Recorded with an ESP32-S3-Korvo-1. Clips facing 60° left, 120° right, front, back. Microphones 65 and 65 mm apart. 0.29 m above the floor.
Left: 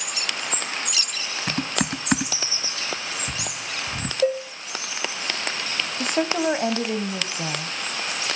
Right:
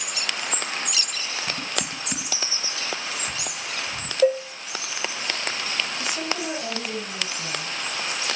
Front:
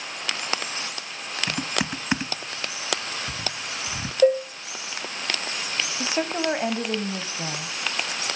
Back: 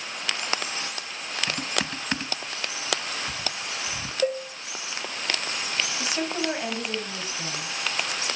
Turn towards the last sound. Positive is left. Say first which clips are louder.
# left 6 dB, front 5 dB
turn(degrees=55)